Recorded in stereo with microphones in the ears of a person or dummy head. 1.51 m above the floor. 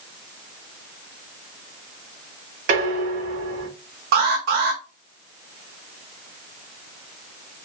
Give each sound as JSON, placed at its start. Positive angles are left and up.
{"t": 2.7, "sound": "dishes clattering", "side_deg": -55, "distance_m": 2.5}
{"t": 4.1, "sound": "an alarm", "side_deg": -65, "distance_m": 1.7}